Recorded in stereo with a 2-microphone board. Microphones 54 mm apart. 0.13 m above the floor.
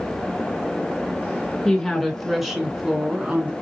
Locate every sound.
1.6 s a woman speaking: 10° left (ahead or behind), 1.9 m; by 3.5 s 20° right (ahead or behind), 1.6 m